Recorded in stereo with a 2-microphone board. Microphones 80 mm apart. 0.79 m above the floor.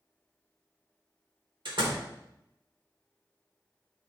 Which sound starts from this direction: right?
A door slam, at 1.6 s.